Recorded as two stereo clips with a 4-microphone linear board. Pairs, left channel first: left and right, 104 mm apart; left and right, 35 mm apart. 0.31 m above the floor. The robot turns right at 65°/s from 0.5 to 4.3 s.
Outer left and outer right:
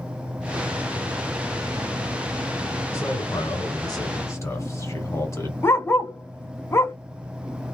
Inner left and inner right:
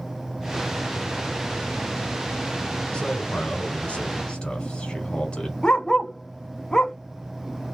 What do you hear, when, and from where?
2.9 s a man speaking: 45° left, 1.2 m; by 5.5 s 135° left, 1.2 m
5.6 s a dog barking: 25° left (ahead or behind), 0.5 m